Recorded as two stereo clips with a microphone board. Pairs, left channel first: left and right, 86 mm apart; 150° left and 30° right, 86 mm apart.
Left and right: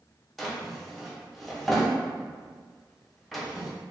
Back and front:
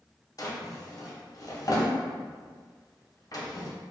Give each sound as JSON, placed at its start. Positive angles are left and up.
{"t": 0.4, "sound": "a drawer", "azimuth_deg": 180, "distance_m": 0.6}